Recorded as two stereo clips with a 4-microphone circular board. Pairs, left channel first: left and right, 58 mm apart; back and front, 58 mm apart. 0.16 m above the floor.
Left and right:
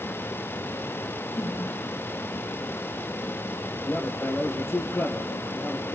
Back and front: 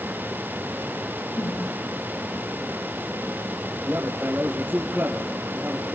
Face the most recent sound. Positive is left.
turn(degrees=50)